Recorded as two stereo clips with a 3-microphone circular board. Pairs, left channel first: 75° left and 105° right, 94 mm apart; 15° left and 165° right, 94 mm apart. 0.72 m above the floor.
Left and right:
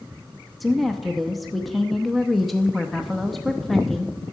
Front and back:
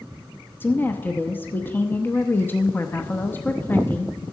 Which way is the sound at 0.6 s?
15° right.